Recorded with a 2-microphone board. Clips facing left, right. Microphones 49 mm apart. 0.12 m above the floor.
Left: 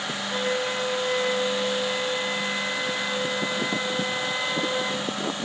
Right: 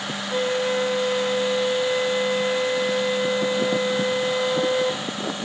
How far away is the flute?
About 3 m.